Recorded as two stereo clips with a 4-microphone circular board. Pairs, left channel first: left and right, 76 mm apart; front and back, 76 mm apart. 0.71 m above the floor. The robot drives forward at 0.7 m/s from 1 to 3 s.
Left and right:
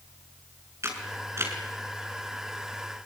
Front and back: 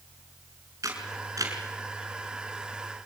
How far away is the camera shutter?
About 5.5 m.